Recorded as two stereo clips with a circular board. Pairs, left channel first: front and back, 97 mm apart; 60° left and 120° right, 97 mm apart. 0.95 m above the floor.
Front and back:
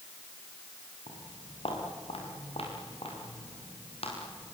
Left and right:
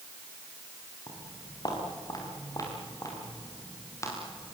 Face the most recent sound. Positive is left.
turn(degrees=0)